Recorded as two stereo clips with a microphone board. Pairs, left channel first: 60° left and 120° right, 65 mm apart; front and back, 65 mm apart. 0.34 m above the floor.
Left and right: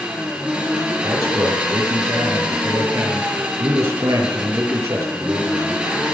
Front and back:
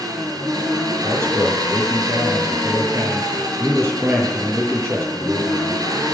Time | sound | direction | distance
0.0 | an engine running | 165° left | 3.5 m
1.0 | a man speaking | 135° right | 7.5 m